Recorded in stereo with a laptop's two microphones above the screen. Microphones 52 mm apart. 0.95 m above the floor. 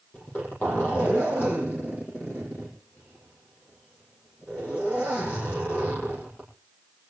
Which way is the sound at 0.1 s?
40° left (ahead or behind).